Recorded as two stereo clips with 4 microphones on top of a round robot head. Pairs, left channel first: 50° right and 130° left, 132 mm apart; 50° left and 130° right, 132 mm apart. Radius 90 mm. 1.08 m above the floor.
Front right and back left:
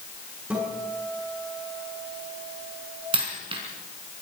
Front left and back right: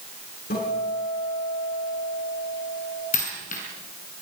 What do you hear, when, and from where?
0.5 s a guitar: 50° left, 8.5 m
3.1 s a dropped coin: 80° left, 4 m